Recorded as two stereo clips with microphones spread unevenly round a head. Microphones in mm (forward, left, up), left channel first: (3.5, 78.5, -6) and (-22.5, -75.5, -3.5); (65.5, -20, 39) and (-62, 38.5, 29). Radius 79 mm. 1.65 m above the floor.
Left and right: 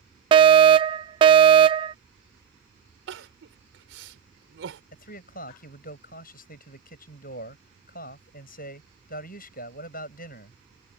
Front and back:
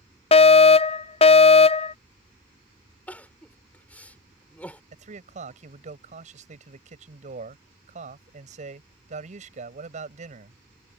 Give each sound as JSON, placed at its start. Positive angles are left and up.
{"t": 0.3, "sound": "a fire alarm", "azimuth_deg": -55}
{"t": 3.1, "sound": "crying", "azimuth_deg": -105}
{"t": 4.9, "sound": "a man speaking", "azimuth_deg": 115}